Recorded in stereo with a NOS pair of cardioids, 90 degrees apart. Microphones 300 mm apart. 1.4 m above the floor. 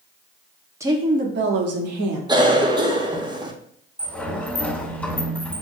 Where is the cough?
15° right, 1.0 m.